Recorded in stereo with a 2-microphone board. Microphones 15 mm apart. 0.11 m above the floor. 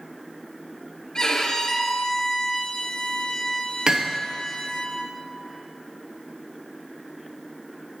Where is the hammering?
45° right (ahead or behind), 1.2 m.